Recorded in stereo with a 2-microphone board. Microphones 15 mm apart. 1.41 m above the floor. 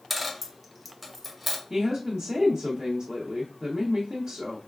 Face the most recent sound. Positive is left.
turn(degrees=-50)  # may be behind; listen again after turning